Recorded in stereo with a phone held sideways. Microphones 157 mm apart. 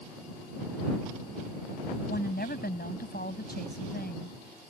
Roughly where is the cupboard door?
No cupboard door in this recording.